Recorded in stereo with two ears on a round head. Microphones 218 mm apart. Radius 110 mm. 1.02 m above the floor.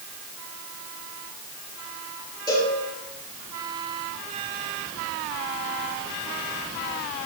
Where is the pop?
I don't hear a pop.